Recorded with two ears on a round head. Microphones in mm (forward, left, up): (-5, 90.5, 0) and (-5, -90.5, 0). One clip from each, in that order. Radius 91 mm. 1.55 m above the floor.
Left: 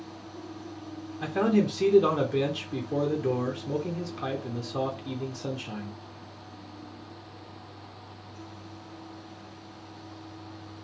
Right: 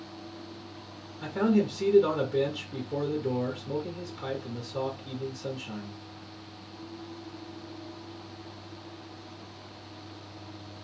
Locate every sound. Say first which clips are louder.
1.2 s a man speaking: left 1 dB; 30° left (ahead or behind), 0.8 m